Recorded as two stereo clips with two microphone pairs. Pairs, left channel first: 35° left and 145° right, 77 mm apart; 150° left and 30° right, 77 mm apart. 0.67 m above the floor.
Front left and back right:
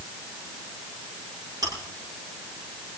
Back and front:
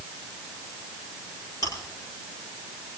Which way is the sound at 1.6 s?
175° right.